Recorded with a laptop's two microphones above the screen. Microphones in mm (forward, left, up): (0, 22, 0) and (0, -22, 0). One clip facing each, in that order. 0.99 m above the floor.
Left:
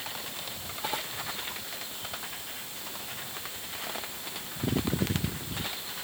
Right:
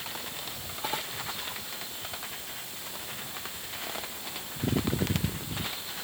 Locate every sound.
Only background noise.